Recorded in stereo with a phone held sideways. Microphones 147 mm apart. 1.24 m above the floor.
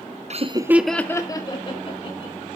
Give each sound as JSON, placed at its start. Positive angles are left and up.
{"t": 0.3, "sound": "laughter", "side_deg": -50, "distance_m": 0.7}